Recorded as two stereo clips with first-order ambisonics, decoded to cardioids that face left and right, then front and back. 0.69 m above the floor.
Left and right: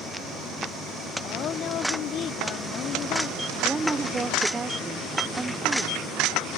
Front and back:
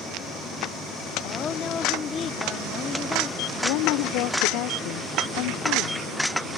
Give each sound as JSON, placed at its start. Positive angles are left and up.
{"t": 1.2, "sound": "a woman speaking", "azimuth_deg": 55}
{"t": 3.6, "sound": "a woman speaking", "azimuth_deg": -10}